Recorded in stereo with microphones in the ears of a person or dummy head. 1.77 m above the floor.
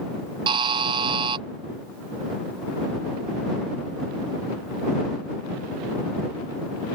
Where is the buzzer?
30° right (ahead or behind).